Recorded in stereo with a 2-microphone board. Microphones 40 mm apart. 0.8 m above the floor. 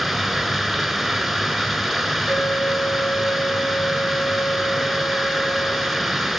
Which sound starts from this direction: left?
A flute, at 2.3 s.